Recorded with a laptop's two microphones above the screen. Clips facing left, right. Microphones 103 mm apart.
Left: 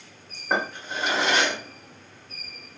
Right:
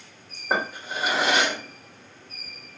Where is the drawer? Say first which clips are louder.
Even; 10° right (ahead or behind), 1.0 m.